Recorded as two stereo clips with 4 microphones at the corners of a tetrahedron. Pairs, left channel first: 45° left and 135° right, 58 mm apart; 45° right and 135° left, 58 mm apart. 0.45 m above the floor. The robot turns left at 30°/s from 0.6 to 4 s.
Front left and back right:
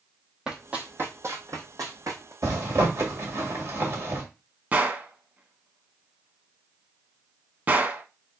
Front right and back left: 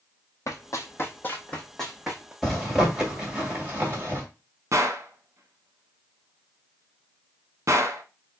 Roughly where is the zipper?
Behind right.